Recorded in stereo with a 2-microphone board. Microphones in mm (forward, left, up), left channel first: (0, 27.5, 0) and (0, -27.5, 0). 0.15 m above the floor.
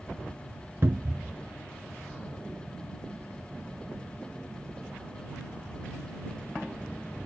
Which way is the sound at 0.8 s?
45° right (ahead or behind).